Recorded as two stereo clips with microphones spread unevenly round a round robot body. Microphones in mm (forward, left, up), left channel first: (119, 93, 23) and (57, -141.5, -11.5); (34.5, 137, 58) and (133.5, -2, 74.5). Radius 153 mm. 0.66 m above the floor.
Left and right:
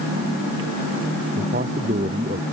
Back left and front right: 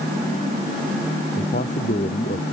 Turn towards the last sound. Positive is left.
turn(degrees=-175)